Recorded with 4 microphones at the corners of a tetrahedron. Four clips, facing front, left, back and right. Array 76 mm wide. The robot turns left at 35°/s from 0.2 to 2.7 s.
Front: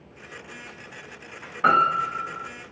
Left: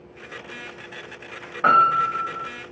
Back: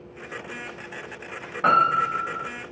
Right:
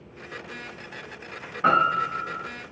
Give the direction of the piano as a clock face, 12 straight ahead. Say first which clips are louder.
Left 4 dB, even; 8 o'clock.